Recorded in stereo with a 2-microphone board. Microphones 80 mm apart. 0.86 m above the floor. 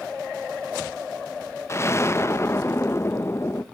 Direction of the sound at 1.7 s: 35° left (ahead or behind).